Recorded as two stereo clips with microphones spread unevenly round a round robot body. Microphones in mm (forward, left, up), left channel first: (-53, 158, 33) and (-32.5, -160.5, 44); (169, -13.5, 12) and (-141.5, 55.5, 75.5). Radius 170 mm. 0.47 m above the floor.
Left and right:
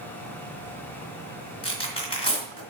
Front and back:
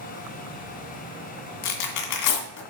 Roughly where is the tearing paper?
Ahead.